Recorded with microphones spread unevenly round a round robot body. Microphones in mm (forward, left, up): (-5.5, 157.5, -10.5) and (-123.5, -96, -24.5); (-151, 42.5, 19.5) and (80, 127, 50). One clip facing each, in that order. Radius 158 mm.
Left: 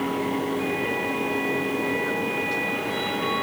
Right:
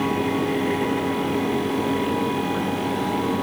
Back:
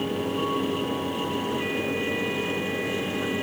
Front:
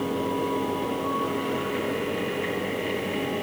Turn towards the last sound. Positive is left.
No sound to turn to.